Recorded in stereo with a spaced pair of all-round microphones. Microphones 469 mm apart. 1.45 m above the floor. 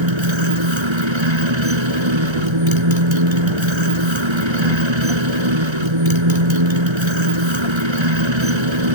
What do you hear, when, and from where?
0.0 s a motorcycle: 75° right (ahead or behind)